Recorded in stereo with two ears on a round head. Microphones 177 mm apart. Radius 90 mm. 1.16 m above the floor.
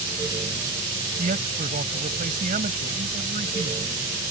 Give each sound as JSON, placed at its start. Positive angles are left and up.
{"t": 1.2, "sound": "a man speaking", "side_deg": -40}